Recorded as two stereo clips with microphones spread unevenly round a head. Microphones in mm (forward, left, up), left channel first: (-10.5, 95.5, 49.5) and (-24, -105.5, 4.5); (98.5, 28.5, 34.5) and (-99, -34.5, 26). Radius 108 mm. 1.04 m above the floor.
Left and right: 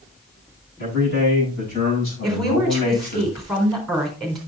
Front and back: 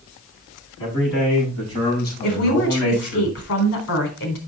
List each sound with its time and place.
0.8 s a man speaking: 45° left, 8 m; by 3.2 s 35° left, 6.5 m
2.2 s a woman speaking: 5° right, 4 m